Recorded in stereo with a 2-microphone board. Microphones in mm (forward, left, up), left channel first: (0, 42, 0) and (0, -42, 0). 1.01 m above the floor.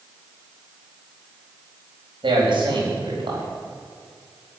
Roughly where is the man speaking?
Right.